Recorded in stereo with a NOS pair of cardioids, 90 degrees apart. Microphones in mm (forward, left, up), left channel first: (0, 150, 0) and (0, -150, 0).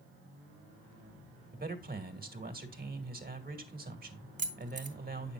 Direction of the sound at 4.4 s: 25° right.